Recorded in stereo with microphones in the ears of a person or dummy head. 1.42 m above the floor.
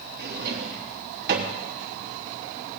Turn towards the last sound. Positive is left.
turn(degrees=-60)  # may be behind; listen again after turning